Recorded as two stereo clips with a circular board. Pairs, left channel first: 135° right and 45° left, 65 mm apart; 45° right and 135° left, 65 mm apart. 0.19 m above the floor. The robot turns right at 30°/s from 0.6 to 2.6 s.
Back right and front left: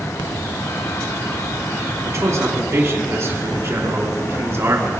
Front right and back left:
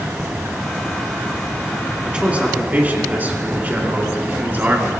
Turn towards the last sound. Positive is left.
turn(degrees=80)